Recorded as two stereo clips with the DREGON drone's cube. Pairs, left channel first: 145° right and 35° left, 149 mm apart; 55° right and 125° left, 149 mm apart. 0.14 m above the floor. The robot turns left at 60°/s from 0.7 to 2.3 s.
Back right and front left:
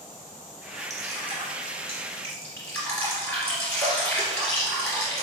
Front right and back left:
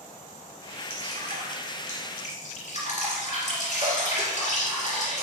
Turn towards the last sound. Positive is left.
turn(degrees=-70)